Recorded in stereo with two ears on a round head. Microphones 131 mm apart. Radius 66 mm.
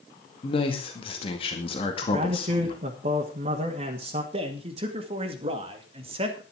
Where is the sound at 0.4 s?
35° left (ahead or behind), 2 m.